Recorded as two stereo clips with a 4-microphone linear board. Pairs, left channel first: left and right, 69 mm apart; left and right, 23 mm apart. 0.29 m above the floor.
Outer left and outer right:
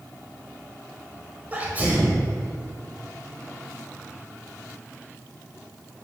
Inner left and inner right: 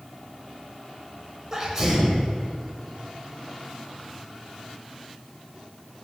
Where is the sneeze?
25° right (ahead or behind), 1.2 m.